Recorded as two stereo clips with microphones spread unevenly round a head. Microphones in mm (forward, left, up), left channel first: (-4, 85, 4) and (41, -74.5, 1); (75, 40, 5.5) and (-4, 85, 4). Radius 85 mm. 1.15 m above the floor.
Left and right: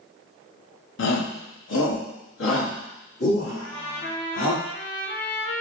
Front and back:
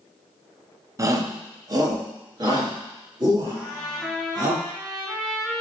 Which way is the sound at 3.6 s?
65° left.